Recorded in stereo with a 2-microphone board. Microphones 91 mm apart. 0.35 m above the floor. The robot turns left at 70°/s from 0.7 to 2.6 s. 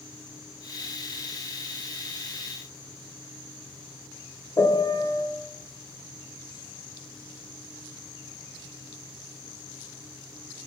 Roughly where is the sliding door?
No sliding door in this recording.